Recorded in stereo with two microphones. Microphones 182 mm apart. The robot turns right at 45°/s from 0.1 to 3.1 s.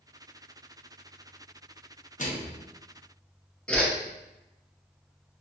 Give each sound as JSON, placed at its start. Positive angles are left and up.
{"t": 2.2, "sound": "a microwave", "side_deg": 45, "distance_m": 0.9}
{"t": 3.7, "sound": "a whoosh", "side_deg": 5, "distance_m": 0.8}